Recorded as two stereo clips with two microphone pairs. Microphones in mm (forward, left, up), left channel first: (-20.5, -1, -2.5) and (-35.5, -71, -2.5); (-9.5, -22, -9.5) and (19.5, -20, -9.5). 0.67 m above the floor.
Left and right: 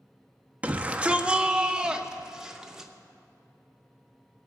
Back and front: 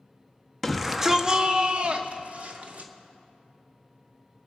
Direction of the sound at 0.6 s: 100° right.